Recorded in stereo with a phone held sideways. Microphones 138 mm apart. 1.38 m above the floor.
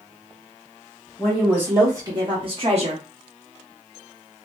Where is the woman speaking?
5° right (ahead or behind), 1.4 m; by 3.0 s 55° right (ahead or behind), 1.3 m.